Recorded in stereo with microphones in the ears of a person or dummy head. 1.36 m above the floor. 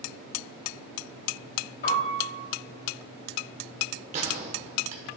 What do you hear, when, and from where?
1.8 s a piano: 50° left (ahead or behind), 4.5 m
4.1 s a gunshot: 40° right (ahead or behind), 1.6 m